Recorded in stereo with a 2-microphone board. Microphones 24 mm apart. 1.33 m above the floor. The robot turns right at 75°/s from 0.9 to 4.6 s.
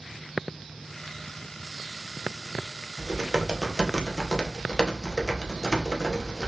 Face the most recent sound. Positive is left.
turn(degrees=30)